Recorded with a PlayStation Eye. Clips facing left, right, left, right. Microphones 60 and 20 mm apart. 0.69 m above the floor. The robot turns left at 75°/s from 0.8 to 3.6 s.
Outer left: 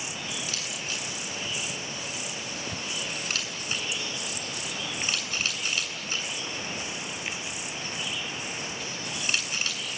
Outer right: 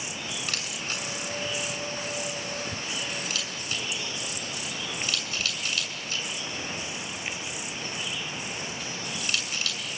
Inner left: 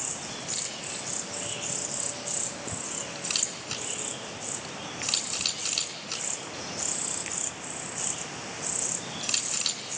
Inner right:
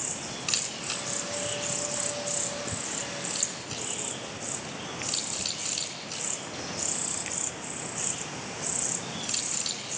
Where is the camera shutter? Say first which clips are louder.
Outer right 1 dB, inner right 8 dB; 60° right (ahead or behind), 7.5 m; by 9.8 s 30° left (ahead or behind), 7.5 m.